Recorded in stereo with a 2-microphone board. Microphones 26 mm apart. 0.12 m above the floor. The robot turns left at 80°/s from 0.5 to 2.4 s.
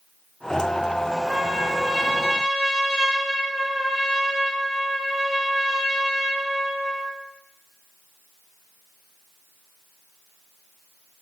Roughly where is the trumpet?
Right.